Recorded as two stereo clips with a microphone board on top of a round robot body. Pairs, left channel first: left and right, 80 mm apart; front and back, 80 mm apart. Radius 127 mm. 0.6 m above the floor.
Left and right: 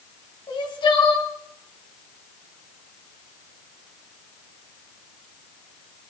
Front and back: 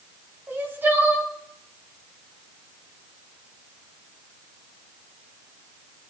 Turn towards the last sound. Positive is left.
turn(degrees=115)